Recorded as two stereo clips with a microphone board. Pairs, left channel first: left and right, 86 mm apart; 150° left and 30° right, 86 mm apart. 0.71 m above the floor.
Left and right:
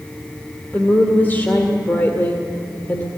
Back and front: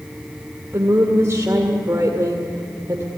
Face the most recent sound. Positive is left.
turn(degrees=25)